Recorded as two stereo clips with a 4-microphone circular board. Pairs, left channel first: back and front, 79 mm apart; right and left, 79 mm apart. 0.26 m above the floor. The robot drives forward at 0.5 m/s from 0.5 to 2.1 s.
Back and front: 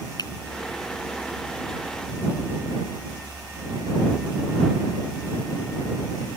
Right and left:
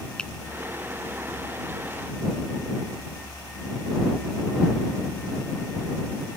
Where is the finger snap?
165° right.